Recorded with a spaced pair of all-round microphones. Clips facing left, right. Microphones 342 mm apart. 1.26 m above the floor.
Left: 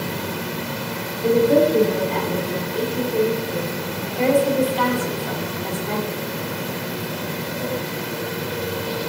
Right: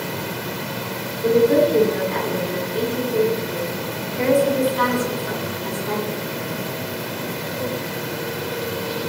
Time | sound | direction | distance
1.2 | a woman speaking | 20° right (ahead or behind) | 3.5 m